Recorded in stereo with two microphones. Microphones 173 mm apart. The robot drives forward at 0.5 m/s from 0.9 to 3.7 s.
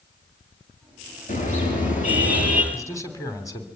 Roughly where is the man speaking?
Centre.